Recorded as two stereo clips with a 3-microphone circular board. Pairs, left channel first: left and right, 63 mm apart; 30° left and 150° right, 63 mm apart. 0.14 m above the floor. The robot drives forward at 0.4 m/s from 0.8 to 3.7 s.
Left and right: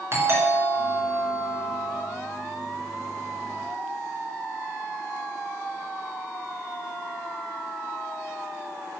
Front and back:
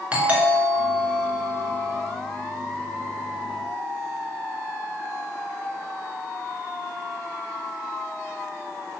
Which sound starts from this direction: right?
A doorbell, at 0.1 s.